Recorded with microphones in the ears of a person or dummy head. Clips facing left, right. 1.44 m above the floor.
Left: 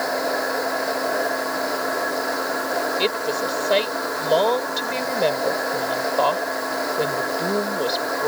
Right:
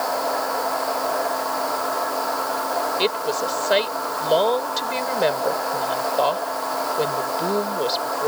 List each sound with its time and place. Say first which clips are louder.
0.0 s a machine running: even; 25° left (ahead or behind)
3.0 s a woman speaking: even; centre (ahead or behind)